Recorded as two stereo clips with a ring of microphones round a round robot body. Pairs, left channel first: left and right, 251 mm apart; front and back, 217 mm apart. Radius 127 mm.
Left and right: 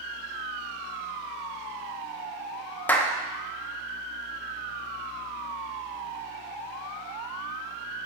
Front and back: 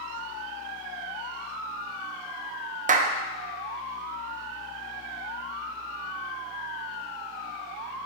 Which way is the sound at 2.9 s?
170° left.